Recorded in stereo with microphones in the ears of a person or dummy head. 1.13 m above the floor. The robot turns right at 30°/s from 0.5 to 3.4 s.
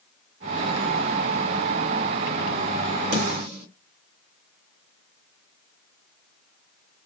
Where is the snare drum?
45° right (ahead or behind), 1.5 m; by 3.7 s 55° right (ahead or behind), 1.5 m.